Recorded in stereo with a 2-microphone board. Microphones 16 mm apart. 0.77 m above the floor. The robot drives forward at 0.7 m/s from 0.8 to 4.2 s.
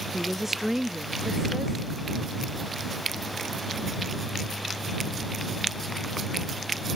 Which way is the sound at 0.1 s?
30° right (ahead or behind).